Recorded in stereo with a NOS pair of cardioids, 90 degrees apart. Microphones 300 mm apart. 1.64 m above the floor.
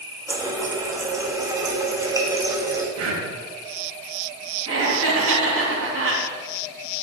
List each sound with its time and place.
0.3 s a running tap: 10° right, 2 m
3.0 s breathing: 60° right, 4 m
4.7 s laughter: 45° right, 3 m